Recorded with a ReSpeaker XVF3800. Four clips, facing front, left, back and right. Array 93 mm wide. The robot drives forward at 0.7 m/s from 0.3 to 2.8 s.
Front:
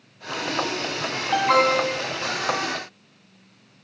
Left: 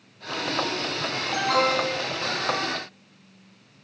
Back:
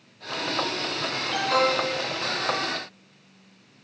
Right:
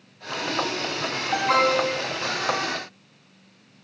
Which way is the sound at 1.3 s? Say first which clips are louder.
Right 2 dB, front 5 dB; 30° right.